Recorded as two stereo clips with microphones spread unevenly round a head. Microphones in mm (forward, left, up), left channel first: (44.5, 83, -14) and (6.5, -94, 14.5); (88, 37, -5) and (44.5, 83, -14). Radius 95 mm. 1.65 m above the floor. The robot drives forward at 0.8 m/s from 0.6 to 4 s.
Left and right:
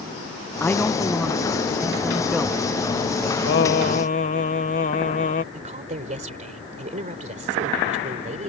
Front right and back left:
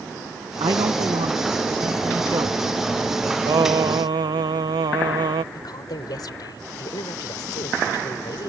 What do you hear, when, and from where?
0.6 s a man speaking: 160° left; by 2.7 s 170° left
3.5 s singing: 120° left; by 5.4 s 135° left
5.5 s a woman speaking: 55° right